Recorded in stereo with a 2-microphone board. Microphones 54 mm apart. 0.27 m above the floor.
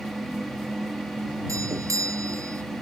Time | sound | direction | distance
1.5 | a doorbell | 75° right (ahead or behind) | ?